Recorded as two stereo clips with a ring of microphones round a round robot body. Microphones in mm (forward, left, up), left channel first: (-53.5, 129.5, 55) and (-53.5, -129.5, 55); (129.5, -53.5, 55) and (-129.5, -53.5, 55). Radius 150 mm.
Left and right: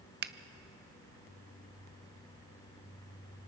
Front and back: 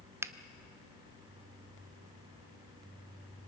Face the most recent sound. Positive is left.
turn(degrees=-105)